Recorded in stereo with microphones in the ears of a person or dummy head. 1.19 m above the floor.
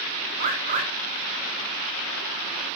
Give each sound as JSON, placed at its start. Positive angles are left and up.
{"t": 0.4, "sound": "a bird", "side_deg": -35, "distance_m": 0.5}